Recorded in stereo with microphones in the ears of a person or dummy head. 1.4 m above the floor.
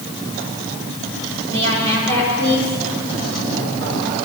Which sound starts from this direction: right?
A woman speaking, at 1.5 s.